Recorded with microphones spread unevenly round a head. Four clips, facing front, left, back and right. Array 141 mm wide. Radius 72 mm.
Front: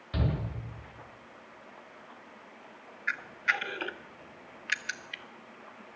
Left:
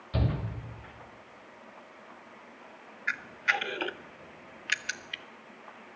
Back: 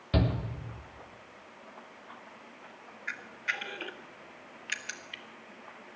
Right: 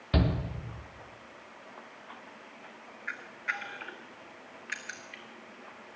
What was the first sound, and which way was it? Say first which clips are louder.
A shout: right 3 dB, back 3 dB; 135° right.